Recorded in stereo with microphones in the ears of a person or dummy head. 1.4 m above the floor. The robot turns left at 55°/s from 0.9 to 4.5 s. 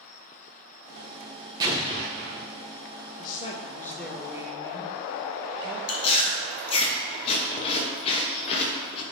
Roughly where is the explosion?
Ahead right.